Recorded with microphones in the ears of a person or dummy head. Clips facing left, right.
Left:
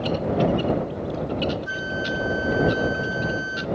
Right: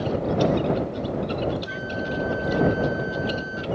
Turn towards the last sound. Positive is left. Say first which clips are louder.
# even
turn(degrees=70)  # may be behind; listen again after turning